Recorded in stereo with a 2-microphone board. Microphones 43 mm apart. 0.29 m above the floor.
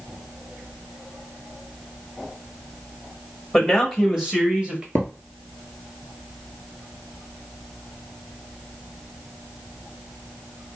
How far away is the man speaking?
About 1.4 m.